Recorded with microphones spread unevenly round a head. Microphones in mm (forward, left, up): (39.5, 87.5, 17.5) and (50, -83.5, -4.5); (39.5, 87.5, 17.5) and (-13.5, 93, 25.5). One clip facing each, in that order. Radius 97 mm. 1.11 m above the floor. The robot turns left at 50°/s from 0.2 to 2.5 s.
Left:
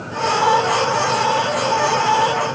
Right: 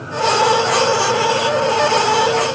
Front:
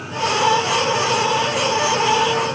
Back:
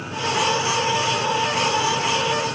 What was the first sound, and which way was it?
Only background noise.